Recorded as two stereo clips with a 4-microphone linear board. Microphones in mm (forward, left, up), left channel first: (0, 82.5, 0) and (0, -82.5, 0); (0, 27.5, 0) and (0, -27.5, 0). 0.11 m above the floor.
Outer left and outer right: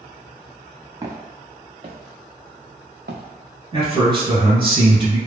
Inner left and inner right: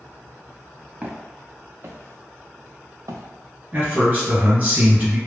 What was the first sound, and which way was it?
Footsteps, 25° right (ahead or behind).